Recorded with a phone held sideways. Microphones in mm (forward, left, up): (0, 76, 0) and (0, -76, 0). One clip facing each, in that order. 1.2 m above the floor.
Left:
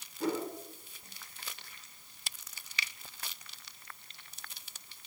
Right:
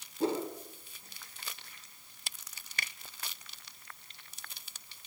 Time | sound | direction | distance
0.2 | a whoosh | 25° right (ahead or behind) | 4.5 m
2.8 | a finger snap | 50° right (ahead or behind) | 1.0 m